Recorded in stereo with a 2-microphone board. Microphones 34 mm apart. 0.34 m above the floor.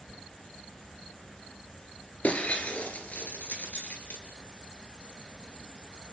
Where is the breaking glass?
40° left (ahead or behind), 2.5 m.